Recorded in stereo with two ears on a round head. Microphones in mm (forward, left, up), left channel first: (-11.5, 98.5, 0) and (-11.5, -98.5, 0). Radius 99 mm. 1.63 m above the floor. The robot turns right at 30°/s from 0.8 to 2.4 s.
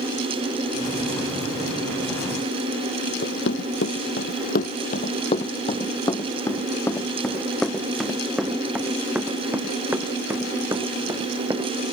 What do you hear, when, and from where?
3.2 s running footsteps: 55° left (ahead or behind); by 11.7 s 15° right (ahead or behind)